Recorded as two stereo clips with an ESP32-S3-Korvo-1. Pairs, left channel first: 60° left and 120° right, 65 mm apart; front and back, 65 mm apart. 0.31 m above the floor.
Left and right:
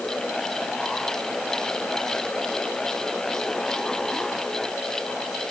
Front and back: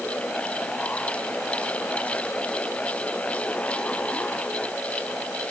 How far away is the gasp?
I don't hear a gasp.